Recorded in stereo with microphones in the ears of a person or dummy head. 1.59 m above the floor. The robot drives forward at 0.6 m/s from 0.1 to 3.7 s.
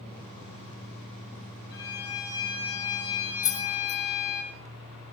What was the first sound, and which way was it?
A violin, 20° left (ahead or behind).